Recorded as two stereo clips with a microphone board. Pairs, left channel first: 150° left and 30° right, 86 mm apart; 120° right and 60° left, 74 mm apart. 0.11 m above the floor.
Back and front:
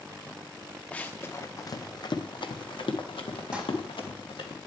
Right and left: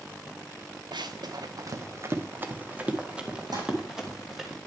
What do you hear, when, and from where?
0.9 s running footsteps: 75° left, 0.9 m; by 4.5 s 150° left, 2.5 m
3.5 s crumpling: 50° left, 6.5 m